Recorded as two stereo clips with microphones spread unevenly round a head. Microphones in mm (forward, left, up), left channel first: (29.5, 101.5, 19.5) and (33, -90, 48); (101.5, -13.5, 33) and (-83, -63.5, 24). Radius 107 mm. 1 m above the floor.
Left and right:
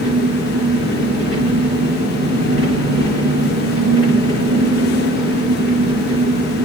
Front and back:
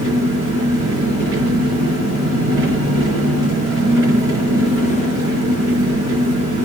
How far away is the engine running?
About 5 m.